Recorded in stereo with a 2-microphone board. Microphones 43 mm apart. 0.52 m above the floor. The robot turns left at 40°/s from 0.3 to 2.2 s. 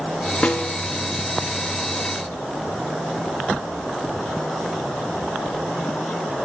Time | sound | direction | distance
0.4 | a snare drum | 25° left (ahead or behind) | 0.5 m